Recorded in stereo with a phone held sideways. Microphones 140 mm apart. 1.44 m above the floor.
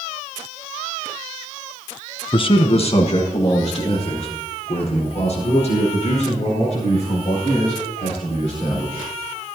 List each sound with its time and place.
2.3 s a man speaking: 35° left (ahead or behind), 0.6 m; by 9.1 s 55° left (ahead or behind), 10.5 m